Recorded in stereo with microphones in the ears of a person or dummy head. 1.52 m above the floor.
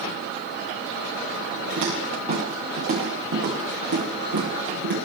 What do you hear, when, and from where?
1.8 s footsteps: 35° right (ahead or behind), 9 m; by 4.9 s 60° right (ahead or behind), 10 m